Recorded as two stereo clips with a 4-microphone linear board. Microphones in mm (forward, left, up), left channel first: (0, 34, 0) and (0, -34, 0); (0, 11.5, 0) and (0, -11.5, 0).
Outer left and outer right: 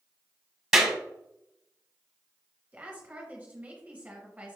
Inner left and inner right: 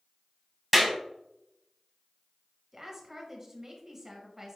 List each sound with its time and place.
0.7 s a clap: 5° right (ahead or behind), 1.7 m
2.7 s a woman speaking: 20° right (ahead or behind), 1.2 m